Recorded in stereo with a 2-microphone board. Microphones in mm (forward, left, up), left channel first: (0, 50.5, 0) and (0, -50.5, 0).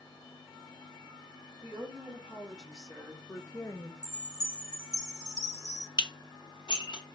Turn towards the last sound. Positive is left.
turn(degrees=50)  # may be behind; listen again after turning